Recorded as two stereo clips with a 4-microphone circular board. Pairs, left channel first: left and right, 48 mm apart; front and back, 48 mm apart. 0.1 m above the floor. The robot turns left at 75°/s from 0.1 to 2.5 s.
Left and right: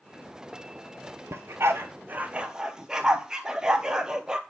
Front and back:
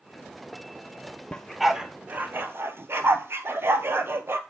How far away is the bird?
No bird in this recording.